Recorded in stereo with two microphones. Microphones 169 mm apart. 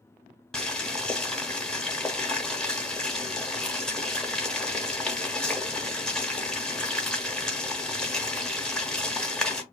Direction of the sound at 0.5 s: 5° left (ahead or behind).